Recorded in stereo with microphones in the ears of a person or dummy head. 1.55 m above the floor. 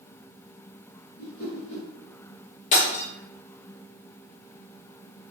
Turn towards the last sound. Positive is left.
turn(degrees=45)  # may be behind; listen again after turning